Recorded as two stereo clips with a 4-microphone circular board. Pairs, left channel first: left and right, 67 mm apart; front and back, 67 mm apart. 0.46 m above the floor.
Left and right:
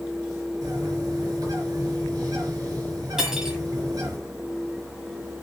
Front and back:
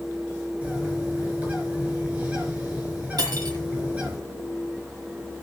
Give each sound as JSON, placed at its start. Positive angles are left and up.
{"t": 0.6, "sound": "a bird", "azimuth_deg": -115, "distance_m": 5.0}
{"t": 3.2, "sound": "cutlery clinking", "azimuth_deg": -170, "distance_m": 1.8}